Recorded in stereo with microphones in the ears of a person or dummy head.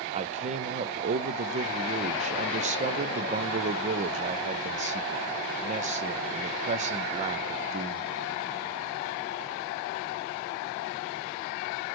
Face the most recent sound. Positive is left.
turn(degrees=-30)  # may be behind; listen again after turning